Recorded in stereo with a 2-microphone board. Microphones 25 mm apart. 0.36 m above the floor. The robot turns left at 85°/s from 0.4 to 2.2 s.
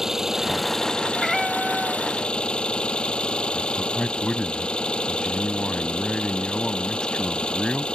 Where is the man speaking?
30° left (ahead or behind).